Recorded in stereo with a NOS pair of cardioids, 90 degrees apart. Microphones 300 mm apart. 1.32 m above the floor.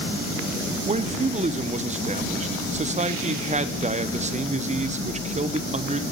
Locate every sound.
0.8 s a man speaking: 25° right, 0.8 m